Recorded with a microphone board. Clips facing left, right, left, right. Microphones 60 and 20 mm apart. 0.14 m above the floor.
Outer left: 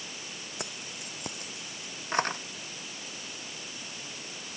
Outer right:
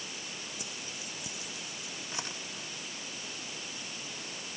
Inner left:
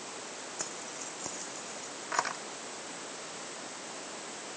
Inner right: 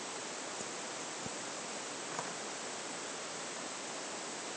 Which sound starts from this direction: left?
Keys jangling, at 0.6 s.